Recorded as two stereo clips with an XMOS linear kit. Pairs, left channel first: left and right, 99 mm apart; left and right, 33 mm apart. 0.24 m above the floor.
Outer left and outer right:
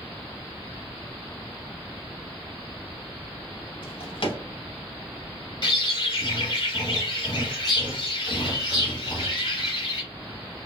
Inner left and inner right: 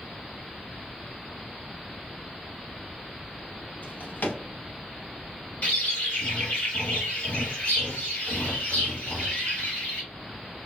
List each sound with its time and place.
3.8 s a drawer: 55° left (ahead or behind), 0.7 m
5.6 s a bird: 45° left (ahead or behind), 1.3 m